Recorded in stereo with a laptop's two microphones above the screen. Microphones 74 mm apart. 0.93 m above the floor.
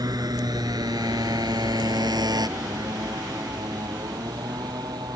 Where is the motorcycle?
60° right (ahead or behind); by 5.2 s 70° right (ahead or behind).